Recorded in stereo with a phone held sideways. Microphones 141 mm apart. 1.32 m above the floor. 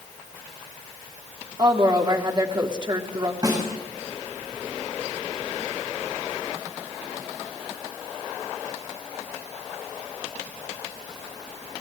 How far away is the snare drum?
About 6 m.